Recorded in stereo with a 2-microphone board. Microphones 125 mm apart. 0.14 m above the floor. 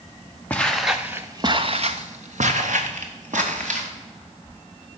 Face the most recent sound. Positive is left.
turn(degrees=-80)